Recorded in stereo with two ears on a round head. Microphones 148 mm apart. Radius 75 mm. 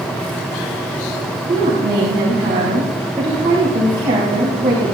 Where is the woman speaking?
30° right (ahead or behind), 6 m.